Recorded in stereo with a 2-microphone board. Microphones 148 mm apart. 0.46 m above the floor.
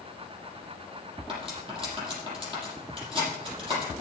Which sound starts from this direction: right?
Cutlery clinking, at 1.3 s.